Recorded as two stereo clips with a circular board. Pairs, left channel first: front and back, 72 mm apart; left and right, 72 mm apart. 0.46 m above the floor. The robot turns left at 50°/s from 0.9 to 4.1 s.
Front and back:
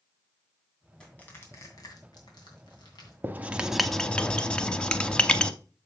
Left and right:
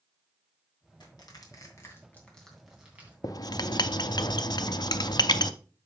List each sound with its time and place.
1.0 s crushing: 80° left, 2.5 m; by 3.1 s 30° right, 2.5 m
3.2 s writing: 120° left, 0.6 m; by 5.5 s 75° left, 0.6 m